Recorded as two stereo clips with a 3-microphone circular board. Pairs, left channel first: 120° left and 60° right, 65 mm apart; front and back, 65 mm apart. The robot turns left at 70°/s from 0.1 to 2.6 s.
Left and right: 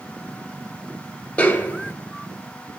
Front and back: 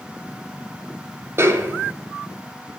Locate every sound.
1.4 s a snare drum: straight behind, 0.5 m; by 1.9 s 140° left, 0.5 m